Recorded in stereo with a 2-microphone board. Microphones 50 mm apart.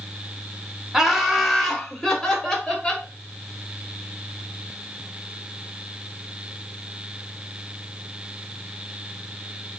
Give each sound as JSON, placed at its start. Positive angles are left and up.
{"t": 0.9, "sound": "laughter", "side_deg": -10, "distance_m": 1.0}